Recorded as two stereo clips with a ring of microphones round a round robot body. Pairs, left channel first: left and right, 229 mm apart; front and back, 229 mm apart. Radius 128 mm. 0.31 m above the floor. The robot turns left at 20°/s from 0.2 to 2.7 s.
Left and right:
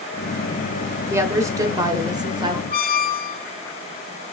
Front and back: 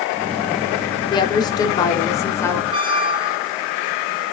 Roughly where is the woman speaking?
Ahead right.